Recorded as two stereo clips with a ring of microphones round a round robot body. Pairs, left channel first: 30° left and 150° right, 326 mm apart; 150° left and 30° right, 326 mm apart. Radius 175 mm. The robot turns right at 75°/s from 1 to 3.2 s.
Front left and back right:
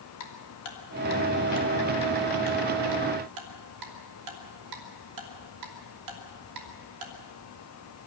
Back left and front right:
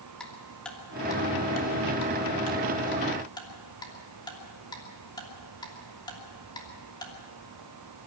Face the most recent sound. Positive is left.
turn(degrees=-130)